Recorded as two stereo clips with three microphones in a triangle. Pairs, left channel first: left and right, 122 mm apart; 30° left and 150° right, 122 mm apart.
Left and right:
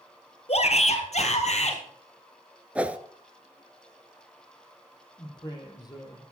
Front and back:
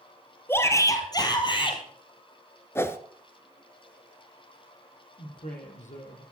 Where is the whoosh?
20° right, 0.9 m.